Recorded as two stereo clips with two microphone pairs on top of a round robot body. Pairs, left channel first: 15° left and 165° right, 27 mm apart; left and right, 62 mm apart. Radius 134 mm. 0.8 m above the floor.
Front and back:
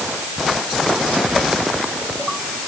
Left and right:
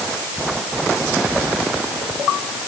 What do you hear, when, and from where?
Only background noise.